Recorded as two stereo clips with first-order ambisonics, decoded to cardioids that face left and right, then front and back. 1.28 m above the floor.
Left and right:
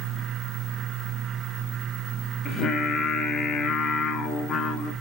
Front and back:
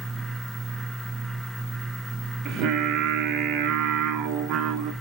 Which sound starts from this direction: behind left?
Singing, at 2.5 s.